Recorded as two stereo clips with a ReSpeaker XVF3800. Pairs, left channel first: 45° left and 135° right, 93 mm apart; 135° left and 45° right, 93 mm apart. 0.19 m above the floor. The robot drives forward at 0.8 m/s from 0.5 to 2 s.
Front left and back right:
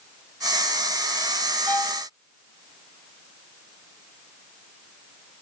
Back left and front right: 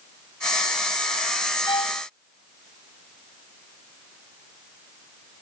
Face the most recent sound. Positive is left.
turn(degrees=115)